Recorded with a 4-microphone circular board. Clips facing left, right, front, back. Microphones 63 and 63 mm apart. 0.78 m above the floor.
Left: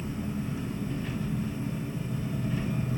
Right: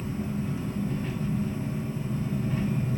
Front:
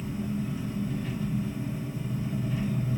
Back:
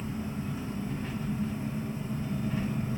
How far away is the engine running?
About 1.4 m.